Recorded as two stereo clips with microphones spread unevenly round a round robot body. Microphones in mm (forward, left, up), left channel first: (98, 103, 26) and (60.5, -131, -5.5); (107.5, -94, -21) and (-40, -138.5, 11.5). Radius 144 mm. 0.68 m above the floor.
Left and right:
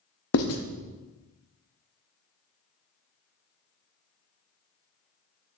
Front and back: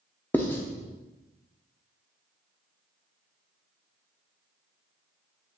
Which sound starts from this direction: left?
Writing, at 0.3 s.